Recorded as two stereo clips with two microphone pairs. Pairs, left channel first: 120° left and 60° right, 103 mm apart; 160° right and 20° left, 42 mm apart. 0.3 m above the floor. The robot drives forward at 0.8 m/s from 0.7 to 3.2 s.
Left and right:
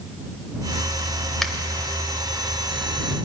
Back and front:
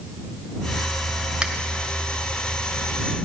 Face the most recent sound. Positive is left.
turn(degrees=165)